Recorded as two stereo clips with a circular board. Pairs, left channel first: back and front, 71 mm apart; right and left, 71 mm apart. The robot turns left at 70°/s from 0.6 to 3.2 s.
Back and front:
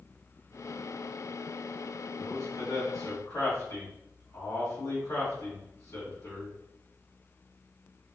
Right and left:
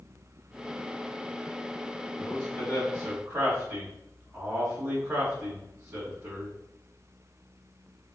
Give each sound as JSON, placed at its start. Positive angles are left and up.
{"t": 2.2, "sound": "a man speaking", "azimuth_deg": -135, "distance_m": 2.5}